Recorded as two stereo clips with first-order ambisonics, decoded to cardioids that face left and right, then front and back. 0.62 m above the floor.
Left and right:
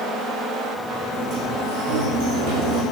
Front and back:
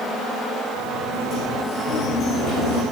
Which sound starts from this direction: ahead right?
A sliding door, at 1.1 s.